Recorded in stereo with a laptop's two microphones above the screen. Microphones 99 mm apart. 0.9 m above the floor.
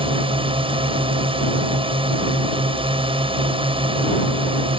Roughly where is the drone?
Right.